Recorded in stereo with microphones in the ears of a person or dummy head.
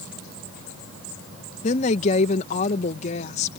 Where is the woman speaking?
35° left (ahead or behind).